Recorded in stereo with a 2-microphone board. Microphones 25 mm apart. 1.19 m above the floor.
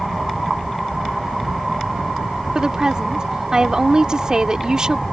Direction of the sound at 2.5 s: 30° right (ahead or behind).